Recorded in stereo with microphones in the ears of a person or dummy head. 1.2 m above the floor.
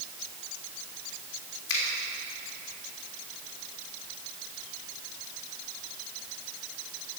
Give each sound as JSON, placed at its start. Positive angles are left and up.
{"t": 1.7, "sound": "a finger snap", "side_deg": 70, "distance_m": 3.5}